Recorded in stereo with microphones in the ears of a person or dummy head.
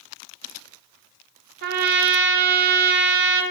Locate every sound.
1.6 s a trumpet: 55° right (ahead or behind), 0.9 m